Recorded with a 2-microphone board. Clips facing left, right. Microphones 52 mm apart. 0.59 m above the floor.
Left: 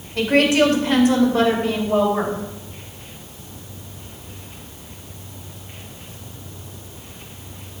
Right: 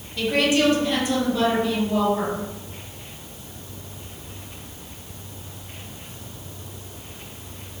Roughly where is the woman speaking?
Left.